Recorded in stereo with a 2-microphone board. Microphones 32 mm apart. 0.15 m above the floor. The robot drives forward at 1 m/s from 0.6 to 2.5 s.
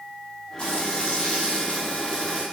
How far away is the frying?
About 2.0 m.